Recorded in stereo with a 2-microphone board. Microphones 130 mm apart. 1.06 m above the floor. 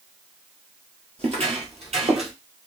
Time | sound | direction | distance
1.2 | footsteps | 50° right (ahead or behind) | 1.6 m